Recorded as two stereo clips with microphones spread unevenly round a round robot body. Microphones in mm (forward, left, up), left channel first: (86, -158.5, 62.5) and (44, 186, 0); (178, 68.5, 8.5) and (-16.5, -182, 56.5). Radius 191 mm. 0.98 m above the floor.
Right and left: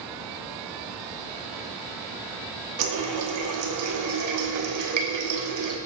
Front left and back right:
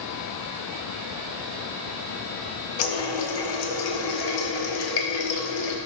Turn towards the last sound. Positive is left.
turn(degrees=60)